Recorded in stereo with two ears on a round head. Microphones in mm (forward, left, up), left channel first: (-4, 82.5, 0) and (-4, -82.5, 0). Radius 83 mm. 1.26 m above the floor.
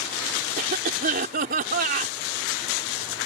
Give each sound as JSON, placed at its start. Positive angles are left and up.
{"t": 0.6, "sound": "a cough", "side_deg": -50}